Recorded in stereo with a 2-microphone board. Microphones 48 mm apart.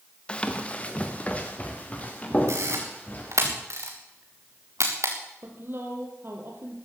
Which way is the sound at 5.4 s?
50° right (ahead or behind).